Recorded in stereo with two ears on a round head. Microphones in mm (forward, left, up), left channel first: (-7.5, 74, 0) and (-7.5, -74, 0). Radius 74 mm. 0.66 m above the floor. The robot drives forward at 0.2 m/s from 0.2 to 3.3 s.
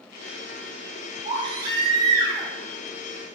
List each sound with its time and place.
1.2 s a baby crying: 30° right (ahead or behind), 0.7 m; by 2.5 s 25° right (ahead or behind), 0.9 m